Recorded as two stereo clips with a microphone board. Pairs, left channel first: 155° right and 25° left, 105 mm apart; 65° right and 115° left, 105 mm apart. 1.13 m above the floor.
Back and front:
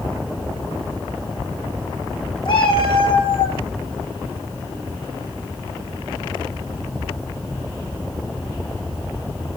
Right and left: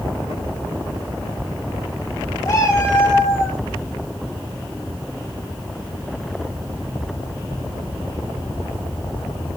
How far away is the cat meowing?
About 6.5 m.